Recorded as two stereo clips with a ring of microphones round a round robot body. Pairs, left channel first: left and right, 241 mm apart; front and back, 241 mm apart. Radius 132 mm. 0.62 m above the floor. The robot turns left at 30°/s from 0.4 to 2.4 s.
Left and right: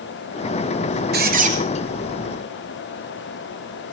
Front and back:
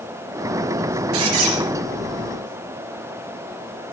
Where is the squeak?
140° right, 3.5 m; by 1.6 s 150° right, 3.5 m.